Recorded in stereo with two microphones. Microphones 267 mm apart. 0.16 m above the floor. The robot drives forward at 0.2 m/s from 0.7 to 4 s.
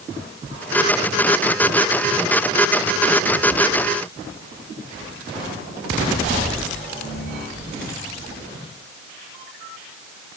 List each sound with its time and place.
Only background noise.